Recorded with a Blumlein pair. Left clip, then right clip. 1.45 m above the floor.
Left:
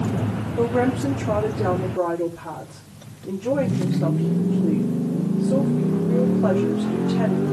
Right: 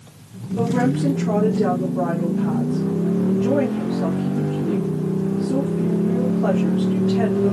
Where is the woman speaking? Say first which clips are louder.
Even; 15° right, 4.5 m.